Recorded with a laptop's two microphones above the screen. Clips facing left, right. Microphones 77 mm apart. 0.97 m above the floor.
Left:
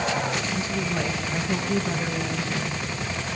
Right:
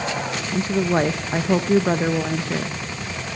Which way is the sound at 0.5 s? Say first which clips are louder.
Right 7 dB; 55° right (ahead or behind).